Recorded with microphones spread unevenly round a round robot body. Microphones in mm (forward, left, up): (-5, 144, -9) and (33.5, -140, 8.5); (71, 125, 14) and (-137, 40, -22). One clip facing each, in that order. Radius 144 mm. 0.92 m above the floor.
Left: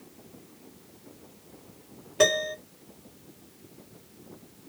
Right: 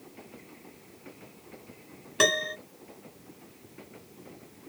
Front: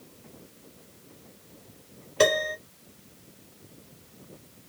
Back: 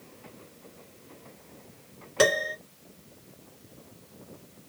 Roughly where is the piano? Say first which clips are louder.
Left 4 dB, front 1 dB; behind right.